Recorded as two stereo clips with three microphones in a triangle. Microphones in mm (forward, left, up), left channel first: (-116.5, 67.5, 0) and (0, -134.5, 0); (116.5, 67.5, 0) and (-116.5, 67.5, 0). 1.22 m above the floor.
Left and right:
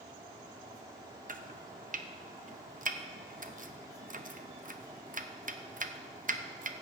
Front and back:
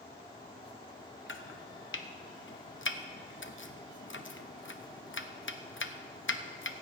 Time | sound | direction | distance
1.3 | chopping | 15° right | 0.7 m